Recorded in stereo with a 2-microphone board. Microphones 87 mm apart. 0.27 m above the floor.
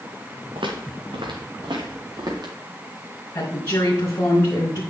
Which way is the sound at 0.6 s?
80° right.